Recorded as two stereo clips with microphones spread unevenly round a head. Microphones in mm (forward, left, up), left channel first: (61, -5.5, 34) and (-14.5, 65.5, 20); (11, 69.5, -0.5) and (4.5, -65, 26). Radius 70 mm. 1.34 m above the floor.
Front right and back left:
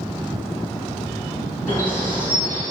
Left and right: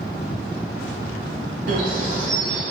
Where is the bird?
120° right, 3.5 m.